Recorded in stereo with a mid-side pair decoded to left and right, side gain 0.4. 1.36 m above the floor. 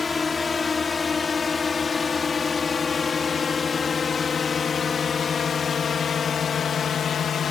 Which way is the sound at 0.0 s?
35° left.